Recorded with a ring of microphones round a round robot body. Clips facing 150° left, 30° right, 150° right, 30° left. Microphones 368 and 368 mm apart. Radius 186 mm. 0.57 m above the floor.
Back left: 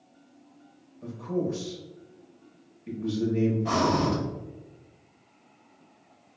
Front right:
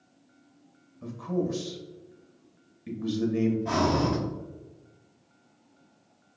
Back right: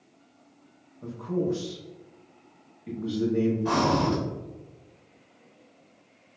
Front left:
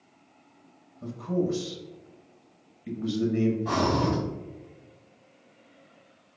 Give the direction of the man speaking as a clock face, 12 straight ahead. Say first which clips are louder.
Even, even; 12 o'clock.